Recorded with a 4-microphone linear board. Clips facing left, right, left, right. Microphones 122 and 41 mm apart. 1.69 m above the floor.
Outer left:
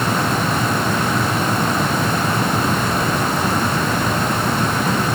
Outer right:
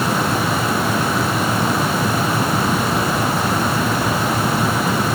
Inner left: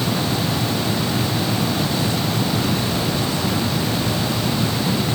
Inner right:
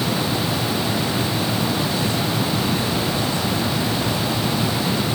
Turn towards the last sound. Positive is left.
No sound to turn to.